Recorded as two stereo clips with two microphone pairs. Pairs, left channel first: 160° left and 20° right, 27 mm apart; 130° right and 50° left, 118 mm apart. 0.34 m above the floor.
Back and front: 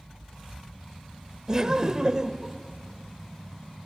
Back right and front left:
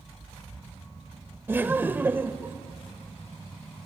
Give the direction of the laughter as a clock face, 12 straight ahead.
12 o'clock.